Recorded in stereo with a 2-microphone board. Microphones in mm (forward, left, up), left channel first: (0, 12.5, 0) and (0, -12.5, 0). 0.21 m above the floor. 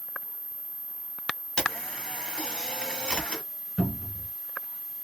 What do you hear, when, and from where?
1.6 s a camera shutter: 30° left (ahead or behind), 1.7 m
3.8 s a cupboard door: 20° left (ahead or behind), 1.5 m